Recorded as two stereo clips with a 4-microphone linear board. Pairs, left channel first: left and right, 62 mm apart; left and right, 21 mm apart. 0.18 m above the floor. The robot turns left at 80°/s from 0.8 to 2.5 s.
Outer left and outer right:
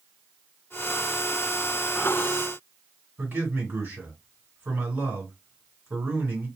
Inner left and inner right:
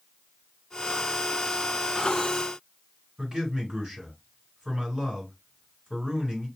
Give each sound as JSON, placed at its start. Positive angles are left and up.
{"t": 3.2, "sound": "a man speaking", "side_deg": -35, "distance_m": 2.0}